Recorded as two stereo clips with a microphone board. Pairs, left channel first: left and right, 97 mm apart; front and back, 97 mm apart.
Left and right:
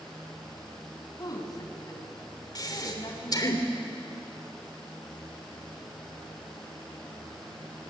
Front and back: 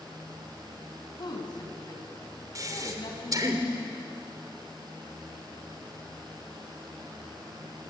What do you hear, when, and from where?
1.2 s a woman speaking: 40° left, 5 m
2.5 s breathing: 135° left, 3 m